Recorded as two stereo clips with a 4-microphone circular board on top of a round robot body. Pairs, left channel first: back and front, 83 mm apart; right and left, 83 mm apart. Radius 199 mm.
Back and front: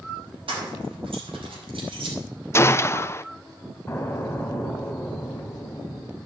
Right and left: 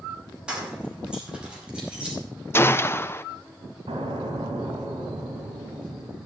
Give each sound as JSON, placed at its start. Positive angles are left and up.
{"t": 0.5, "sound": "keys jangling", "azimuth_deg": 10, "distance_m": 4.5}
{"t": 2.5, "sound": "a gunshot", "azimuth_deg": -135, "distance_m": 0.8}
{"t": 3.9, "sound": "an explosion", "azimuth_deg": 105, "distance_m": 2.5}